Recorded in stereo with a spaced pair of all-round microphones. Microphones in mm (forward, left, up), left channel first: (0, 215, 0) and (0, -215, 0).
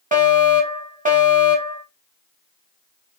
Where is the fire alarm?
20° right (ahead or behind), 2.5 m.